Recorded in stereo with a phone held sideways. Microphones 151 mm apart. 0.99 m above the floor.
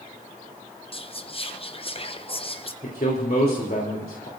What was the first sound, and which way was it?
Whispering, 40° left (ahead or behind).